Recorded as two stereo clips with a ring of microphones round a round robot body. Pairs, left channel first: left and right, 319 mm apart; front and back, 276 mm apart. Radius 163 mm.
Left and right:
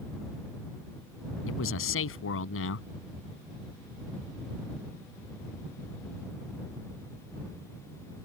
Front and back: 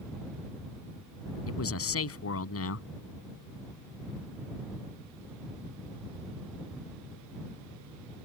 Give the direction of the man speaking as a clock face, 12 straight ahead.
11 o'clock.